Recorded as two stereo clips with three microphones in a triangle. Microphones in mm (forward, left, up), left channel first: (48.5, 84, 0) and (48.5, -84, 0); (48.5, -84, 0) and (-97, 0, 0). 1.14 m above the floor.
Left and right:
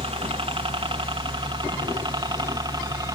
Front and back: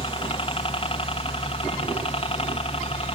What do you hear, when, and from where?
0.0 s a helicopter: 60° right; by 3.1 s 40° right